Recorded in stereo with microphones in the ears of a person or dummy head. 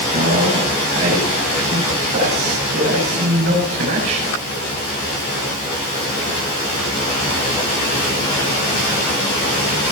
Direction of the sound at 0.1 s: 65° right (ahead or behind).